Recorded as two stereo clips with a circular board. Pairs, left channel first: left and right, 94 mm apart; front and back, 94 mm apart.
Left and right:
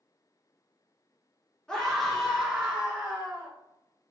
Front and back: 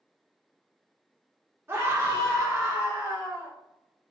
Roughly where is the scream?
Behind.